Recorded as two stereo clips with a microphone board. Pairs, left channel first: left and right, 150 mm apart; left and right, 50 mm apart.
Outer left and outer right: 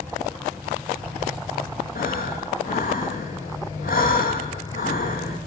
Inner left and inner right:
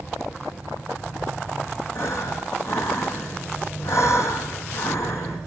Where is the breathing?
65° left (ahead or behind), 0.7 m.